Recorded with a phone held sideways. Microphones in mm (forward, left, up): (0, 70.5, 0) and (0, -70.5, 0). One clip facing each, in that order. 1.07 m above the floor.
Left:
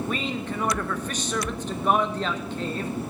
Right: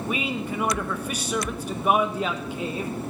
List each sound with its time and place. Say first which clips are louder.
0.1 s a man speaking: right 1 dB; 10° right (ahead or behind), 1.0 m